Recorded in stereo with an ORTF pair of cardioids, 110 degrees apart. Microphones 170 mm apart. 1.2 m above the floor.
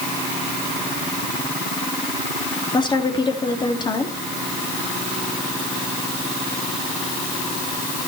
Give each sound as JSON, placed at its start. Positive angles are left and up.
{"t": 2.7, "sound": "a woman speaking", "azimuth_deg": 25, "distance_m": 2.5}